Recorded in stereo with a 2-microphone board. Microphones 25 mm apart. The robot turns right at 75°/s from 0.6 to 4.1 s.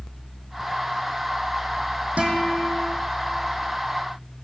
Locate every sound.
2.2 s a guitar: 65° right, 3.5 m; by 3.0 s 10° right, 3.5 m